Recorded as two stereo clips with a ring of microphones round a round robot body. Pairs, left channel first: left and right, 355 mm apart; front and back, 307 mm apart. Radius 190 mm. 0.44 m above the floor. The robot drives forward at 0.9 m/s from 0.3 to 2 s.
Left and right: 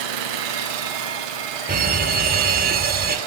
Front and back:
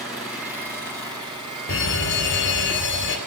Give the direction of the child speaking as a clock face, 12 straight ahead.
No child speaking in this recording.